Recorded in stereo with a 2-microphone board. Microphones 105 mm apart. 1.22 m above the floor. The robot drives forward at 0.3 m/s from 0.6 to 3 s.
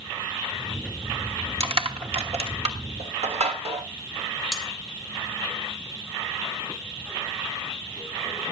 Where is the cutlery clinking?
5° left (ahead or behind), 1.8 m.